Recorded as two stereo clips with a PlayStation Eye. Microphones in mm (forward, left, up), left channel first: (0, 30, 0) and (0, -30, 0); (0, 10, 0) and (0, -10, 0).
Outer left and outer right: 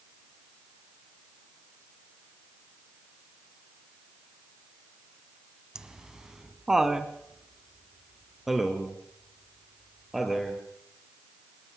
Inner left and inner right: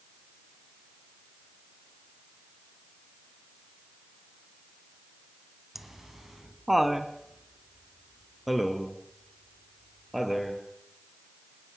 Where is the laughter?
10° right (ahead or behind), 1.6 m; by 10.6 s centre (ahead or behind), 4.5 m.